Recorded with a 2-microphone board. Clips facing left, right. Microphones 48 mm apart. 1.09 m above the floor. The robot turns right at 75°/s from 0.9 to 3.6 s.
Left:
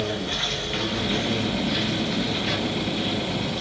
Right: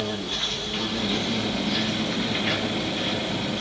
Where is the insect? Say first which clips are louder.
Left 2 dB; 100° left, 1.6 m; by 3.6 s 60° right, 1.6 m.